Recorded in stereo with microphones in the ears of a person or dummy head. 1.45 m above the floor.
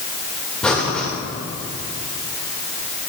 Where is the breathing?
5° left (ahead or behind), 2 m.